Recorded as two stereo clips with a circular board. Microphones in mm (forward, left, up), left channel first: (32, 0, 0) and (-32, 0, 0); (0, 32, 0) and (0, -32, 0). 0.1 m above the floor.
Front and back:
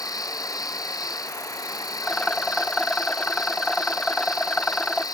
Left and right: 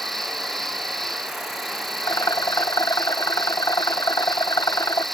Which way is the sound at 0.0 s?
5° left.